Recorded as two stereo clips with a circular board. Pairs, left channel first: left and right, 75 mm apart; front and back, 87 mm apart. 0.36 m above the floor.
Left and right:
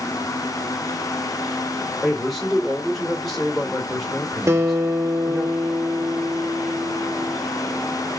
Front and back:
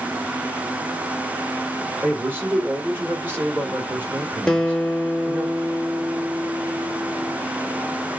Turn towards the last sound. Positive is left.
turn(degrees=-75)